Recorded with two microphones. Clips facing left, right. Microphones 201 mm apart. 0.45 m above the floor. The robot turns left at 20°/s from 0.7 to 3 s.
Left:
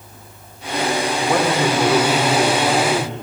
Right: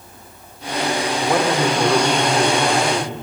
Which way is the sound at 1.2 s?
Centre (ahead or behind).